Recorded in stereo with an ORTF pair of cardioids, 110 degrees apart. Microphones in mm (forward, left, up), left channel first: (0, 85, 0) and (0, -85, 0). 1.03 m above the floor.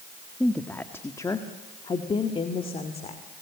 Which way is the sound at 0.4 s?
5° left.